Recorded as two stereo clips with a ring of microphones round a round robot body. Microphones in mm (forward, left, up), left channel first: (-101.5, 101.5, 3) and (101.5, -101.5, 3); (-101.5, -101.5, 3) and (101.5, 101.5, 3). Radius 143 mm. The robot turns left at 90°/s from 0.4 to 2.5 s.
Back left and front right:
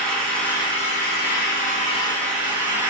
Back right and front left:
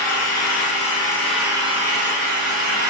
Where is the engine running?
140° right, 0.8 m; by 2.9 s 30° left, 0.8 m.